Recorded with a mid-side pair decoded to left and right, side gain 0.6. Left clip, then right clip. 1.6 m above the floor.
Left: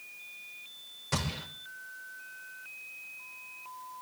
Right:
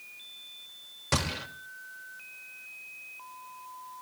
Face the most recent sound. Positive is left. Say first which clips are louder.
# right 4 dB
turn(degrees=-45)